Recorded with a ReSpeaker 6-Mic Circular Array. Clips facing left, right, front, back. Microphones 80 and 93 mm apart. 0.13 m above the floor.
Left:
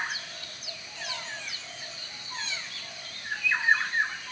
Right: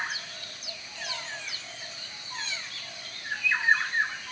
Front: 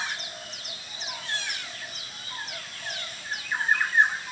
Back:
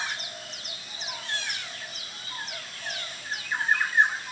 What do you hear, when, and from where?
Only background noise.